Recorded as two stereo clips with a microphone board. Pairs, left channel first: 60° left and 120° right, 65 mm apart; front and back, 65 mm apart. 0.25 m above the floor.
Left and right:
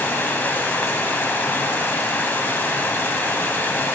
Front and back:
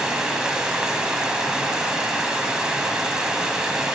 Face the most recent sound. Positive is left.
turn(degrees=110)